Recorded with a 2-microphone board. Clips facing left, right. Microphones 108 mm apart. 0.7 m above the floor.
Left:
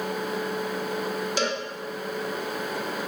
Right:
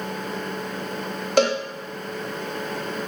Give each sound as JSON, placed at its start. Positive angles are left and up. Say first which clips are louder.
{"t": 1.4, "sound": "a cowbell", "louder": "right 11 dB", "side_deg": -60, "distance_m": 1.4}